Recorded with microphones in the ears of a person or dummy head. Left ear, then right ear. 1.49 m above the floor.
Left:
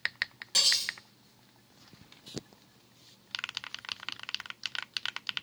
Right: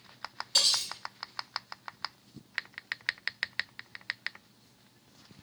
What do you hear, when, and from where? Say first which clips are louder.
0.5 s cutlery clinking: even; 30° left (ahead or behind), 1.3 m